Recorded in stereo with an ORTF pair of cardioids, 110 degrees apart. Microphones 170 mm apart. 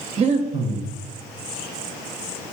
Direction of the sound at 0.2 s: 40° right.